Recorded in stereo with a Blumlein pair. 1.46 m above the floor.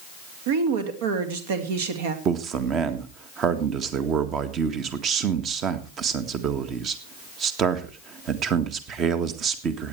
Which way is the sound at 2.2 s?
30° right.